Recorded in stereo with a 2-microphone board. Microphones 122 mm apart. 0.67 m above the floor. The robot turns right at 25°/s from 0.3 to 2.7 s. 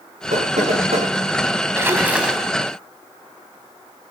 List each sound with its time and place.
0.3 s knocking: 80° right, 7.5 m; by 1.1 s 60° right (ahead or behind), 7.5 m
1.8 s a splash: 20° right (ahead or behind), 3 m; by 2.5 s 5° right (ahead or behind), 3 m